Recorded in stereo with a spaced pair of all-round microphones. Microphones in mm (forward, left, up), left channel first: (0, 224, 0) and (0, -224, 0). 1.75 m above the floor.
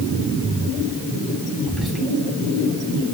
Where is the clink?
I don't hear a clink.